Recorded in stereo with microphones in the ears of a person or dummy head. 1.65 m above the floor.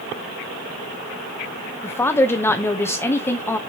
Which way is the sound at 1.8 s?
10° left (ahead or behind).